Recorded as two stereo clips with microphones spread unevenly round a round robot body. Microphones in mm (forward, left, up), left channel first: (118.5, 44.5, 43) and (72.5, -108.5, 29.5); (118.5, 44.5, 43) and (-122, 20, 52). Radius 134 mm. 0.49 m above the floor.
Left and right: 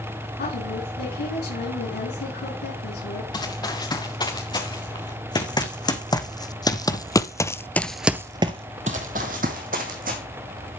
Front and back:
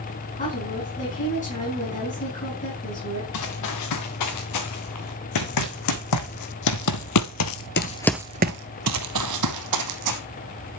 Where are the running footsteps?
10° left, 4 m; by 10.2 s 170° right, 1.8 m.